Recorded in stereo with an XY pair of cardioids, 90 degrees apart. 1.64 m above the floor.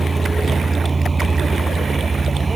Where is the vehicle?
25° right; by 2.6 s 30° right.